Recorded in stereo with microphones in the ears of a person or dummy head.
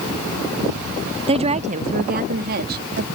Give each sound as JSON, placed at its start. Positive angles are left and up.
{"t": 1.3, "sound": "a woman speaking", "side_deg": -30}